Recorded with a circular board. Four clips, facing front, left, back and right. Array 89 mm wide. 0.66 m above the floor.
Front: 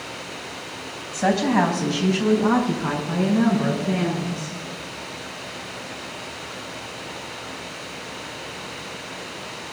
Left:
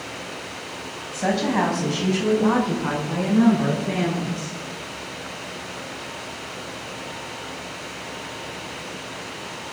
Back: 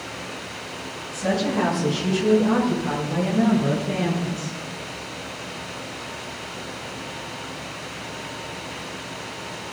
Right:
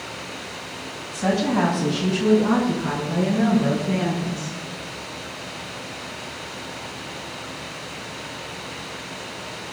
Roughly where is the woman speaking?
Ahead.